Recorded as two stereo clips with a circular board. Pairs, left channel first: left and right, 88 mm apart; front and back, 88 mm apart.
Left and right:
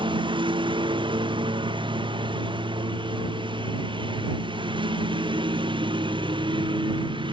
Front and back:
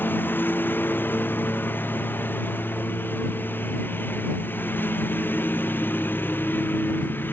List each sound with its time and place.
0.0 s a lawn mower: 65° right